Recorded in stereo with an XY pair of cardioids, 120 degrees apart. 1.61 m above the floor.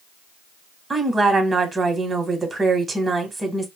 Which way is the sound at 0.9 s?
25° right.